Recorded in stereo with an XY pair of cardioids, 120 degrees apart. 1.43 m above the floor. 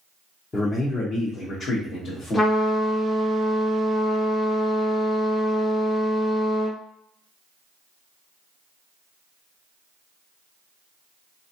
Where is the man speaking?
30° left, 0.8 m; by 2.5 s 65° left, 1.6 m.